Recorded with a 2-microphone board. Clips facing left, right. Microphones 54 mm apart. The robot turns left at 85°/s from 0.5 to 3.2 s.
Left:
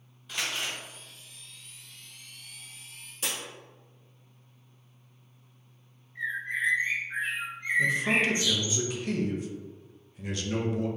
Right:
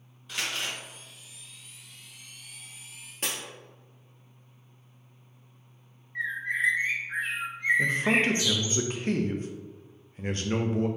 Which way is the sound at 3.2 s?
50° right (ahead or behind).